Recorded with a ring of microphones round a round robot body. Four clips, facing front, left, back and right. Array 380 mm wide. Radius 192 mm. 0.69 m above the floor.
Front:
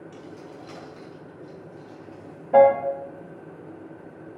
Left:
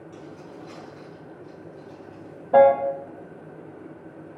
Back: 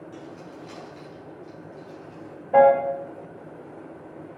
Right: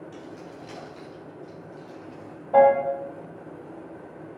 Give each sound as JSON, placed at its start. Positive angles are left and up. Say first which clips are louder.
{"t": 0.1, "sound": "keys jangling", "louder": "even, back 1 dB", "azimuth_deg": -45, "distance_m": 2.5}
{"t": 2.5, "sound": "a piano", "louder": "left 2 dB, even", "azimuth_deg": 55, "distance_m": 1.2}